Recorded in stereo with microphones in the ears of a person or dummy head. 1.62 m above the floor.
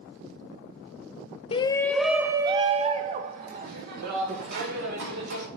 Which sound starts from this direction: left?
A shout, at 1.5 s.